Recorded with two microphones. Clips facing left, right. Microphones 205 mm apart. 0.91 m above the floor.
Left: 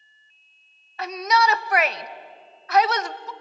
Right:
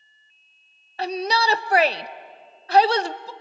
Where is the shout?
30° right (ahead or behind), 0.6 m.